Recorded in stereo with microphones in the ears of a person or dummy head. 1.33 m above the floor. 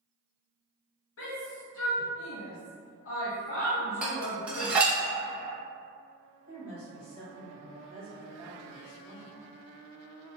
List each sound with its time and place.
1.2 s a shout: 65° left (ahead or behind), 0.5 m
4.0 s dishes clattering: 10° right (ahead or behind), 0.5 m
6.5 s a woman speaking: 70° left (ahead or behind), 1.1 m